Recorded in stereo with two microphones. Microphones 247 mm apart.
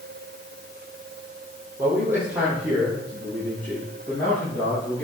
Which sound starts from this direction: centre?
A man speaking, at 1.8 s.